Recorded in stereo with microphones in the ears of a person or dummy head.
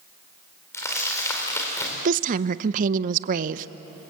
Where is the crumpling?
20° left (ahead or behind), 4 m.